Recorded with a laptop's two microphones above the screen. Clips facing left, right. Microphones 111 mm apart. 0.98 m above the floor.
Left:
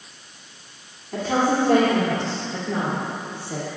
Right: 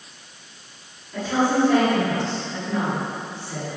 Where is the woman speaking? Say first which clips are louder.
Even; 75° left (ahead or behind), 2.5 m; by 3.7 s 55° left (ahead or behind), 3.5 m.